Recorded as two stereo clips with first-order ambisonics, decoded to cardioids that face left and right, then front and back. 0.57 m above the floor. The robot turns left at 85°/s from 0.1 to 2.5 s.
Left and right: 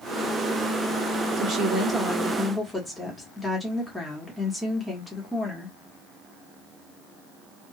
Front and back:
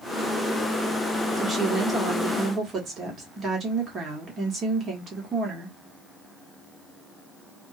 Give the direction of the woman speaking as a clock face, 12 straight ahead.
3 o'clock.